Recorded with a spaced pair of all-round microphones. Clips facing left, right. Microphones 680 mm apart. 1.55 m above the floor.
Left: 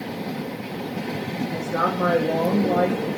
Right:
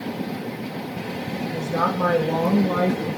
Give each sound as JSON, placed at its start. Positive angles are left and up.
{"t": 1.5, "sound": "a woman speaking", "side_deg": -25, "distance_m": 2.5}